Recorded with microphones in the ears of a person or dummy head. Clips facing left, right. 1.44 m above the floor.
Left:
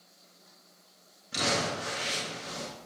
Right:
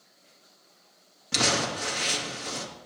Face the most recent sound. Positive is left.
turn(degrees=-80)